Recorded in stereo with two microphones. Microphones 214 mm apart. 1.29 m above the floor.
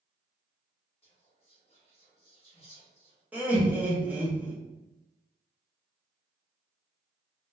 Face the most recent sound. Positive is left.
turn(degrees=-10)  # may be behind; listen again after turning